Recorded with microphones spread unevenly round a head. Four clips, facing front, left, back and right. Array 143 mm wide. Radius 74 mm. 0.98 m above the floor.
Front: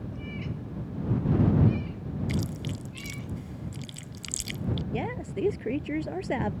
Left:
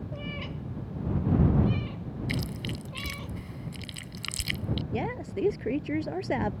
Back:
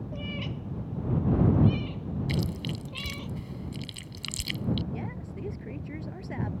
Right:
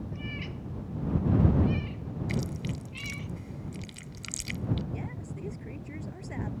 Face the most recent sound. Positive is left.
turn(degrees=45)